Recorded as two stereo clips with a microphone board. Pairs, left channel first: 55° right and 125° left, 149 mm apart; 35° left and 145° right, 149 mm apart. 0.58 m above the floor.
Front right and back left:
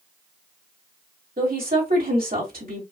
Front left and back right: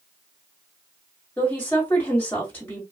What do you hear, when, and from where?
1.4 s a woman speaking: 110° left, 2.5 m